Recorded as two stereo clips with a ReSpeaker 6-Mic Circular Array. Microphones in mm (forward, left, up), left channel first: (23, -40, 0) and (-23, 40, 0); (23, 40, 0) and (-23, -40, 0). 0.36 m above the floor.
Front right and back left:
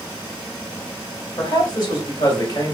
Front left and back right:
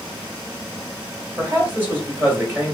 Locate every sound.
1.4 s a man speaking: 60° right, 1.9 m